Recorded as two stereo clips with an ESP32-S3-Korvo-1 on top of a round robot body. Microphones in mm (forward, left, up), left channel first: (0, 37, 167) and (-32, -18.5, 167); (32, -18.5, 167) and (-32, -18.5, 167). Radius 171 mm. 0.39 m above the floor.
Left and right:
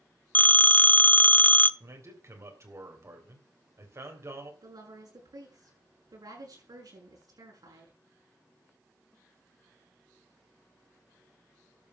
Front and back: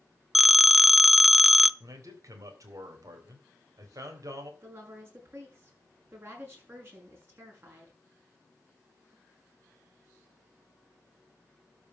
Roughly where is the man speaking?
Behind right.